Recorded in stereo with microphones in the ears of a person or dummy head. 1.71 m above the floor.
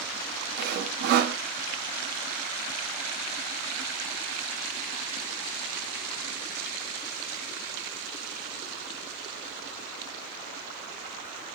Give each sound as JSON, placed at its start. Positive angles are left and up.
{"t": 0.6, "sound": "sawing", "side_deg": -60, "distance_m": 0.5}